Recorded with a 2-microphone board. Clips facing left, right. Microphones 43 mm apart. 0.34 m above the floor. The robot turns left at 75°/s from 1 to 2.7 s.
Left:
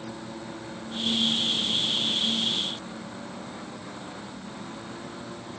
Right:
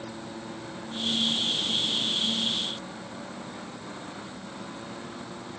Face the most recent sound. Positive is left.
No sound to turn to.